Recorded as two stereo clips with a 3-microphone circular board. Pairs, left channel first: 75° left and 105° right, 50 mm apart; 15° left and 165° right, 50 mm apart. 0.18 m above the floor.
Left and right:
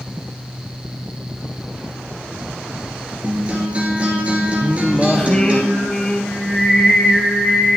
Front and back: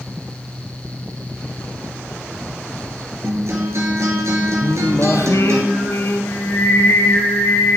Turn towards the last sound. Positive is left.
turn(degrees=0)